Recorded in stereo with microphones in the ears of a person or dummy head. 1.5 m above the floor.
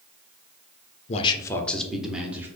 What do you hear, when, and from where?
1.1 s a man speaking: 35° left (ahead or behind), 0.5 m; by 2.5 s 15° right (ahead or behind), 1.1 m